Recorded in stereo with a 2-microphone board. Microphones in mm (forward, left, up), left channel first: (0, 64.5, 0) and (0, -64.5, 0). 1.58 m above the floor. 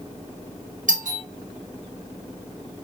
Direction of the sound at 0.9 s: 75° right (ahead or behind).